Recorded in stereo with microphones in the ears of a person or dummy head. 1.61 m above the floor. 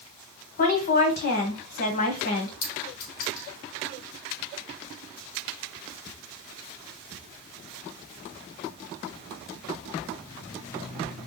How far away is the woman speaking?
About 1.4 m.